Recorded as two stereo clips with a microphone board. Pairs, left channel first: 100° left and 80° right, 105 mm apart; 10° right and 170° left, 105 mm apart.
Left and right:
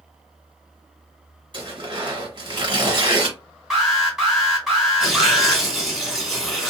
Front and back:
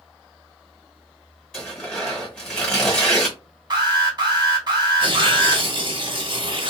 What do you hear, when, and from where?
1.5 s tearing paper: 95° right, 1.5 m
3.7 s an alarm: 165° right, 1.9 m
5.0 s tearing paper: 165° right, 1.6 m